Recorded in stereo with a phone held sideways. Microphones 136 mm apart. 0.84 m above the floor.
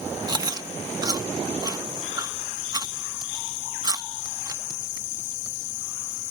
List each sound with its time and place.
0.3 s chewing: 30° right (ahead or behind)